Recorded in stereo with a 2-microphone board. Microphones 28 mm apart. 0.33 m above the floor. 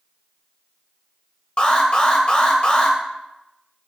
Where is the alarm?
35° left (ahead or behind), 1.6 m.